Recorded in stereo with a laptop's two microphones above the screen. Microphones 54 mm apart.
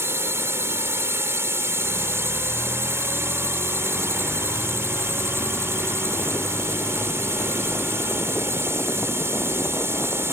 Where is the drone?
60° right (ahead or behind).